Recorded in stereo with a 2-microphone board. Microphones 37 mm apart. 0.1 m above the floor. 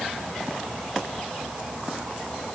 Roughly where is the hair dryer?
I don't hear a hair dryer.